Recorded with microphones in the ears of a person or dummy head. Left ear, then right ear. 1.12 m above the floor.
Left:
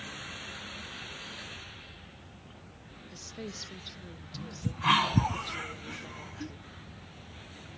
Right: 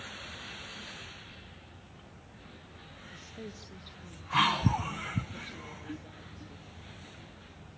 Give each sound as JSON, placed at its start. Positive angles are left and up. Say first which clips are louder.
{"t": 3.1, "sound": "a woman speaking", "louder": "left 5 dB", "side_deg": 20, "distance_m": 1.1}